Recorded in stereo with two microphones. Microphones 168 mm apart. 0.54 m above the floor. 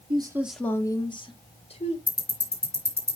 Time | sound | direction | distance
0.1 | a woman speaking | 30° right (ahead or behind) | 0.7 m
2.1 | ticking | 15° left (ahead or behind) | 4 m